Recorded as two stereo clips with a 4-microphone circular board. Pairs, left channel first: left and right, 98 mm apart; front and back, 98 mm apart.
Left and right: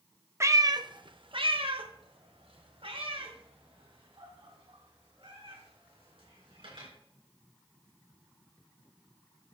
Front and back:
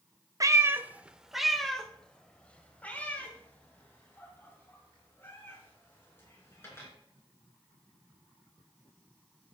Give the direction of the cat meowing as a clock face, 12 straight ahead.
5 o'clock.